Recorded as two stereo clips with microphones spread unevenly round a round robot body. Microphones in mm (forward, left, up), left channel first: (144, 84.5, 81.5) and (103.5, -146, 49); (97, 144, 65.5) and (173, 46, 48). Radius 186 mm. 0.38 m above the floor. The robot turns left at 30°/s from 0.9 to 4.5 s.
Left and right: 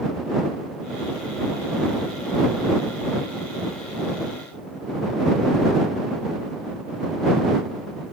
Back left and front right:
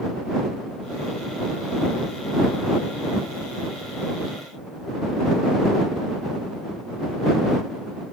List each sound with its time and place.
Only background noise.